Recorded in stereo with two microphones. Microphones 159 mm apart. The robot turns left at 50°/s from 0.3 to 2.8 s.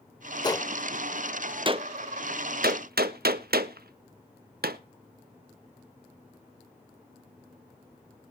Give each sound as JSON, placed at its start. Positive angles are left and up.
{"t": 0.4, "sound": "a gunshot", "side_deg": 25, "distance_m": 0.7}